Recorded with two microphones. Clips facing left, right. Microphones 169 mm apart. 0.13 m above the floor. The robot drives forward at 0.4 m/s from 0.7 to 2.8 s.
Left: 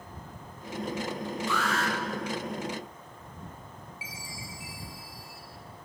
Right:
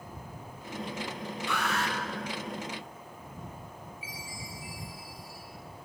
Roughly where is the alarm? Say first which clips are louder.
Left 1 dB; right.